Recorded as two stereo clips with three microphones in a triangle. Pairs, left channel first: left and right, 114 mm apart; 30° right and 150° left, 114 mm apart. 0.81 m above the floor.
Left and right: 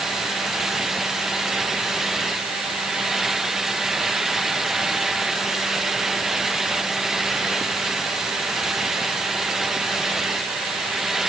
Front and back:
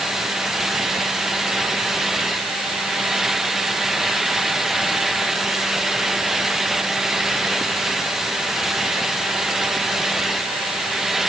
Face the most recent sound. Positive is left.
No sound to turn to.